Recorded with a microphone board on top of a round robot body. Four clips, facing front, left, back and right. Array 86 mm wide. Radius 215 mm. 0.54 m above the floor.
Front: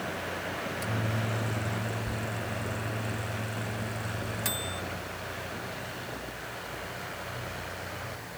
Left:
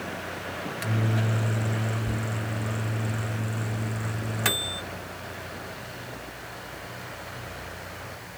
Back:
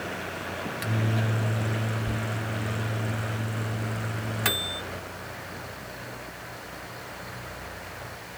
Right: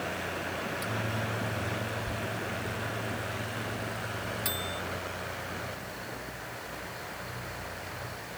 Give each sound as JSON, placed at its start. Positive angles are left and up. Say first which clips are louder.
{"t": 0.7, "sound": "a microwave", "louder": "left 4 dB, back 5 dB", "azimuth_deg": 130}